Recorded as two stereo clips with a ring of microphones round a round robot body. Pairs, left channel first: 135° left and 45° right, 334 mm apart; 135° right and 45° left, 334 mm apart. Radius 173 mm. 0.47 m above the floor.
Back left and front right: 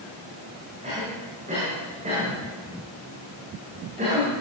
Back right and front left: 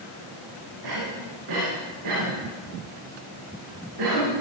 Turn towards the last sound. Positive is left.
turn(degrees=25)